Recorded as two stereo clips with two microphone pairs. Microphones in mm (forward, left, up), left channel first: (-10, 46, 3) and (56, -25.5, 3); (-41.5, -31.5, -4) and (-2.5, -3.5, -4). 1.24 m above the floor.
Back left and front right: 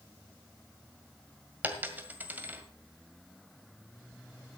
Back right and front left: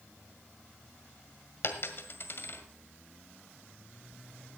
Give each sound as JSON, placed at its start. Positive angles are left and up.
{"t": 1.6, "sound": "a dropped coin", "azimuth_deg": -115, "distance_m": 1.8}